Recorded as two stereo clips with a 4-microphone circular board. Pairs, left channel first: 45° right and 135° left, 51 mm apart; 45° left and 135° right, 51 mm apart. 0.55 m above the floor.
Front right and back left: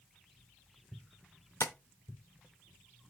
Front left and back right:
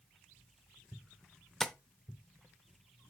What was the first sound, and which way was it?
Tapping, 40° right.